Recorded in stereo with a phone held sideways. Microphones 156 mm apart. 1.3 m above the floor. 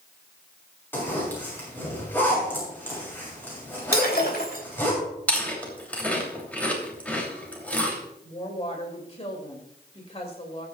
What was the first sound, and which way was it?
A zipper, 10° left (ahead or behind).